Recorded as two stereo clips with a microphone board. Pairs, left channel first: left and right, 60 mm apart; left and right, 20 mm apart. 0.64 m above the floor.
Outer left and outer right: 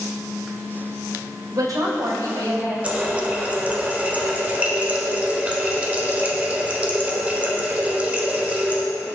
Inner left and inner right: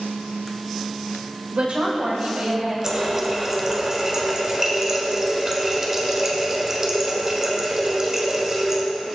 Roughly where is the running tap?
Right.